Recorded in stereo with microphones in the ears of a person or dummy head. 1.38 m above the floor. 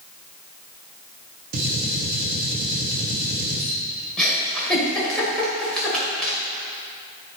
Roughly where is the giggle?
Centre.